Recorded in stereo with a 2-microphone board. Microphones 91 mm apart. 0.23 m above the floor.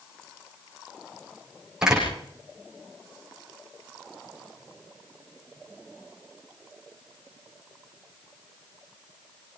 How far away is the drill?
I don't hear a drill.